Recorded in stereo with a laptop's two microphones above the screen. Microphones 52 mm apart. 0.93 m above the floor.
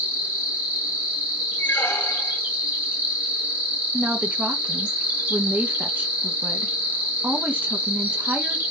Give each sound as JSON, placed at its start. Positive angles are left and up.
{"t": 0.0, "sound": "an insect", "side_deg": -30, "distance_m": 1.3}
{"t": 1.6, "sound": "a squeak", "side_deg": 50, "distance_m": 0.8}
{"t": 3.9, "sound": "a woman speaking", "side_deg": -30, "distance_m": 0.6}